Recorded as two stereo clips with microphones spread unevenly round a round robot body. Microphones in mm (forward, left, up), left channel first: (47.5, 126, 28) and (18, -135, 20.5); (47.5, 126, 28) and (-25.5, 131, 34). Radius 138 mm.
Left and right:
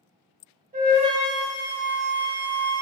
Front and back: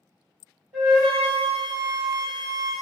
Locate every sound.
0.7 s a flute: 130° right, 1.3 m